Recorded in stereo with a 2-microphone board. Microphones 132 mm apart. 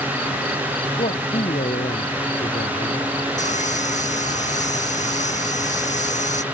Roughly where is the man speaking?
Left.